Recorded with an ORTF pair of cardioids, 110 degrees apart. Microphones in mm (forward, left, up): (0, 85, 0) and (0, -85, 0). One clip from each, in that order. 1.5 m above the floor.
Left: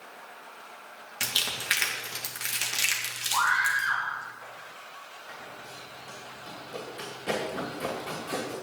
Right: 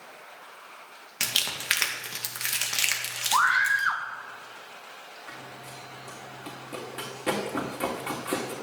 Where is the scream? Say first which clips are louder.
Right 3 dB; 60° right, 1.2 m.